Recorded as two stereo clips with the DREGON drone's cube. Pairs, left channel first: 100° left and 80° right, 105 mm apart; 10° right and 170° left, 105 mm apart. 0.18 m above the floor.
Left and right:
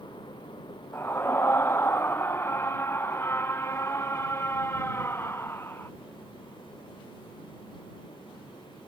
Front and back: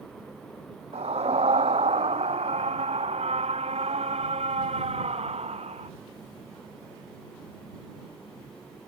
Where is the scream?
165° left; by 5.9 s 170° left.